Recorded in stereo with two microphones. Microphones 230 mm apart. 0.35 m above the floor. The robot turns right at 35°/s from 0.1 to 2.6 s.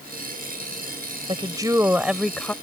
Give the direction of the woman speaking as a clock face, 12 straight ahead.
1 o'clock.